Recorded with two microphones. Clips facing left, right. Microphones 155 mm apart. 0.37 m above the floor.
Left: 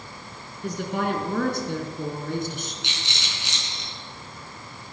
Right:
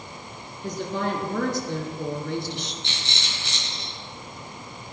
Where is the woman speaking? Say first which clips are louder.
Left 1 dB; 65° left (ahead or behind), 3.5 m; by 2.7 s 40° left (ahead or behind), 3.5 m.